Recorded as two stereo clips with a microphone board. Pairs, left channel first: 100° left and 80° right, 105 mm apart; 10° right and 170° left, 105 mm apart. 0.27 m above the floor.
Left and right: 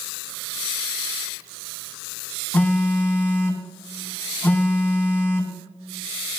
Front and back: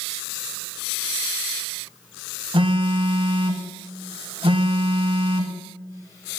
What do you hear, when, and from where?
2.5 s a phone buzzing: 165° left, 1.0 m